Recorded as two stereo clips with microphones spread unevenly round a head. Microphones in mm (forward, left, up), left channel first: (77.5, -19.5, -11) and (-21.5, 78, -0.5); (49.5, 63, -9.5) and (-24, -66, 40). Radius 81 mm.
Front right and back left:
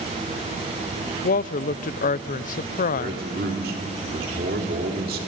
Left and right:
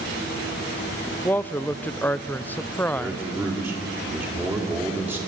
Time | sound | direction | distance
1.2 | a woman speaking | 30° right | 0.5 m
3.0 | a man speaking | 165° left | 3 m